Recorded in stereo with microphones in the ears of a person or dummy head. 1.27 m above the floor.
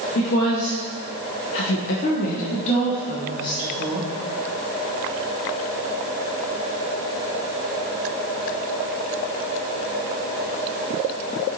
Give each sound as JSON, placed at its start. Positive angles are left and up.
{"t": 0.1, "sound": "a woman speaking", "side_deg": 45, "distance_m": 1.0}